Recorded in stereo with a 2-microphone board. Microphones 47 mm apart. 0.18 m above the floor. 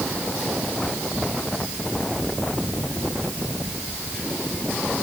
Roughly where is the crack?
I don't hear a crack.